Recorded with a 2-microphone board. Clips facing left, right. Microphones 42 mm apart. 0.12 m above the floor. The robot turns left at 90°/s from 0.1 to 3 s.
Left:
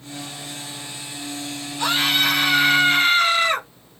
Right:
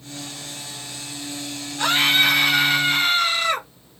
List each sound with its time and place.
1.8 s a scream: 95° right, 1.5 m; by 3.7 s 155° left, 1.5 m